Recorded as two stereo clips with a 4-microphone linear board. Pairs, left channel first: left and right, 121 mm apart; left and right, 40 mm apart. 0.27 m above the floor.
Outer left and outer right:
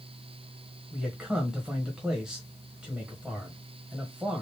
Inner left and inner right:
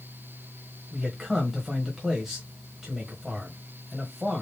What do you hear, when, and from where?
0.9 s a man speaking: 5° right (ahead or behind), 1.2 m